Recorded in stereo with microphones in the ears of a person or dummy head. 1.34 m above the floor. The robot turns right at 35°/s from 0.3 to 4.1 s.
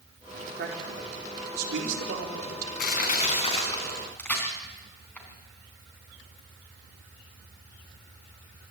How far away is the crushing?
About 4.5 m.